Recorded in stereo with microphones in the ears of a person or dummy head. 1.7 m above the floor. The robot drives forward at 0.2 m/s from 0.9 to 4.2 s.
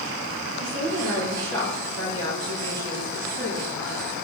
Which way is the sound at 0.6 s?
80° right.